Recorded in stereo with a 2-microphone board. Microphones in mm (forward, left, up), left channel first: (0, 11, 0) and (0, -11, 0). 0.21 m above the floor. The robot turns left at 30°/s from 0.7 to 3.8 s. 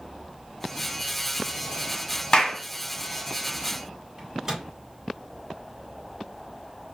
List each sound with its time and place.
2.3 s a clap: 35° left (ahead or behind), 1.2 m; by 2.6 s 40° left (ahead or behind), 1.2 m
4.2 s a microwave: 25° right (ahead or behind), 1.7 m